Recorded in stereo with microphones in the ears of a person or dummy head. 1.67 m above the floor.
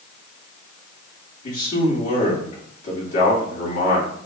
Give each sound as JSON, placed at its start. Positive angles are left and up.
{"t": 1.4, "sound": "a man speaking", "side_deg": 55, "distance_m": 2.0}